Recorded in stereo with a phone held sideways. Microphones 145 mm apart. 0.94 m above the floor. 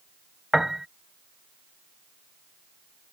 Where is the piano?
5° right (ahead or behind).